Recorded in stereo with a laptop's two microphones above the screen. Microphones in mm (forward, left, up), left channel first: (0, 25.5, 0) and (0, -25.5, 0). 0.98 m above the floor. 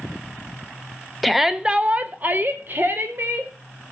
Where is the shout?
Centre (ahead or behind), 0.6 m; by 3.5 s 45° right (ahead or behind), 1.5 m.